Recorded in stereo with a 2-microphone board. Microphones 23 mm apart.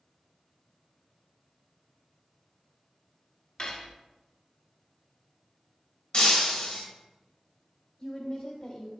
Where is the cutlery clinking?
35° left (ahead or behind), 0.6 m.